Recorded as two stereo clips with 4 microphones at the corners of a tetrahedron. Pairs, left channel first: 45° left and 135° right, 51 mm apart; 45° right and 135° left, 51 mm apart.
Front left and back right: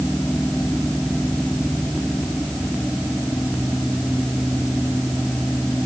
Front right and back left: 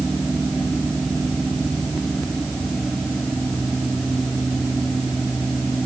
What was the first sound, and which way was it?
Only background noise.